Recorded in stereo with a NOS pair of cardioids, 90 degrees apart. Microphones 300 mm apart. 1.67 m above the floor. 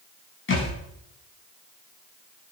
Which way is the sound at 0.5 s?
40° left.